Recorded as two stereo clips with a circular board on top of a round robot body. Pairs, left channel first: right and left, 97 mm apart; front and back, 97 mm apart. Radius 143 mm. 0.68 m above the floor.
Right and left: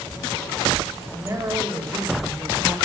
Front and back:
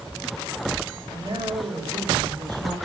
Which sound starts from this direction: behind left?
A man speaking, at 1.1 s.